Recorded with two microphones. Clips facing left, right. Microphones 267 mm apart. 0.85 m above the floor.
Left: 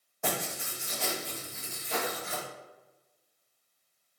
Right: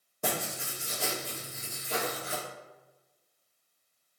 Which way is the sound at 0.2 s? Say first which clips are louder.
Even; 40° right (ahead or behind).